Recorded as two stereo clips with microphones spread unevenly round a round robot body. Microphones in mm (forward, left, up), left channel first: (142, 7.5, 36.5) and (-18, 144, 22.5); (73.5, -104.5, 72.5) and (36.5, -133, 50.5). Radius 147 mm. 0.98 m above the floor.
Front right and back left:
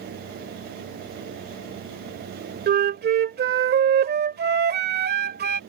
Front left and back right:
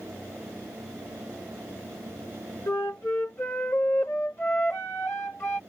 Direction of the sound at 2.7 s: 100° left.